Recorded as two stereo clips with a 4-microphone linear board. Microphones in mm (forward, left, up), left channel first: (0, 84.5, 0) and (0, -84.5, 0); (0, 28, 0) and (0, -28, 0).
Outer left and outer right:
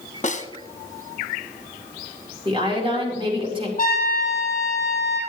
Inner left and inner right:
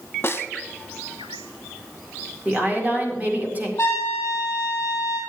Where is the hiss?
I don't hear a hiss.